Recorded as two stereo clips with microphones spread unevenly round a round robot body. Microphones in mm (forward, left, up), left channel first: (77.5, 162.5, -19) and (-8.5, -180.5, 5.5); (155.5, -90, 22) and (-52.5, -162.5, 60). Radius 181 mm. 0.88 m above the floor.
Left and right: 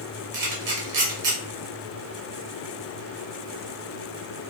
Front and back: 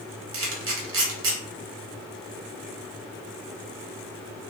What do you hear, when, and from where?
0.3 s a camera shutter: 150° right, 0.9 m